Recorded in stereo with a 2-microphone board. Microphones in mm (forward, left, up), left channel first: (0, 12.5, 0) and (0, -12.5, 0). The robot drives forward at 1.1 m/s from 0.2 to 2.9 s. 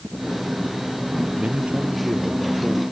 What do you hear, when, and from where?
1.4 s a man speaking: 45° right (ahead or behind); by 2.8 s 40° right (ahead or behind)